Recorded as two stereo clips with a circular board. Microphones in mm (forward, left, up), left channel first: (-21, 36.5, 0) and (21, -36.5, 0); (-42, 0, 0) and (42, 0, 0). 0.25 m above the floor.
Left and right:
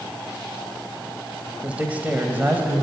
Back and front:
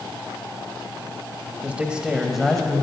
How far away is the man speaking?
About 1.0 m.